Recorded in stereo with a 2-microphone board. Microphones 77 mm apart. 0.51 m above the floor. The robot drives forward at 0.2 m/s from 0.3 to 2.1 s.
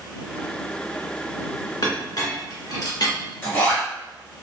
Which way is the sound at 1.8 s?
60° left (ahead or behind).